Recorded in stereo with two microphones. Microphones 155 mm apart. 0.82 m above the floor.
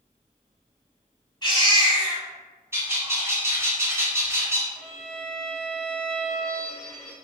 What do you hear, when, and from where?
1.4 s a baby crying: 30° left (ahead or behind), 1.8 m
2.7 s a bird: 15° right (ahead or behind), 0.8 m
4.8 s a violin: 5° left (ahead or behind), 0.6 m